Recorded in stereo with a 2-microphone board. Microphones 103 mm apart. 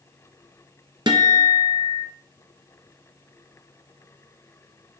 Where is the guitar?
45° right (ahead or behind), 1.0 m.